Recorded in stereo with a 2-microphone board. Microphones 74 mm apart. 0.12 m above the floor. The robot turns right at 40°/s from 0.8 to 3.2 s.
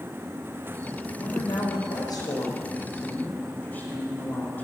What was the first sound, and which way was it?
A woman speaking, 75° left.